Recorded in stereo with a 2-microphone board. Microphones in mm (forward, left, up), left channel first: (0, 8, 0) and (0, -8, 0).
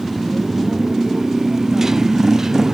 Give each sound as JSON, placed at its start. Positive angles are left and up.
{"t": 0.0, "sound": "a motorcycle", "side_deg": -20}